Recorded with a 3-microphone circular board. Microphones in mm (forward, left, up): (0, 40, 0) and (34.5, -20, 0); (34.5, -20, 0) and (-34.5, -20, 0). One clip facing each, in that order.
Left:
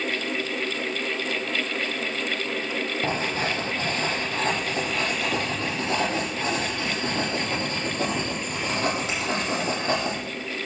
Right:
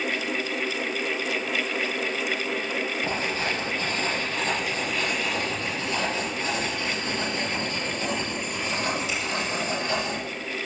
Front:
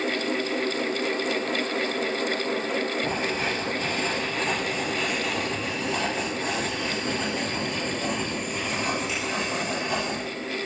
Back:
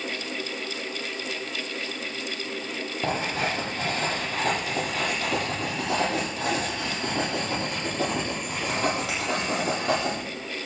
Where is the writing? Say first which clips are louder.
Left 1 dB, even; 160° left, 8 m.